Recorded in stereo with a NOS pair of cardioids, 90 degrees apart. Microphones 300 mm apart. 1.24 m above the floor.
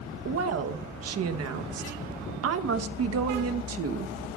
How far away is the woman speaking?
About 1.1 m.